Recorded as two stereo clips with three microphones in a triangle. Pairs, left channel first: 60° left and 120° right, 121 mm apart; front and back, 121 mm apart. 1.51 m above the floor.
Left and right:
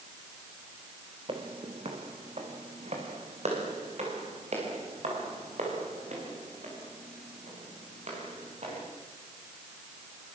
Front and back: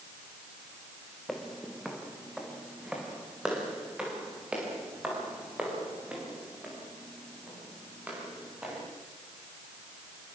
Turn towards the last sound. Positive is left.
turn(degrees=-100)